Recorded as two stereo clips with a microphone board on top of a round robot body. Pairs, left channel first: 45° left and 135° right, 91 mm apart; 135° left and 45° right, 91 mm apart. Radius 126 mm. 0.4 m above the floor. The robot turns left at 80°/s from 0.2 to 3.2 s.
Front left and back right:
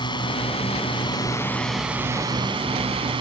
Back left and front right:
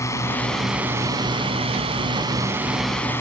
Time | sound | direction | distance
0.0 | a drone | 80° left | ?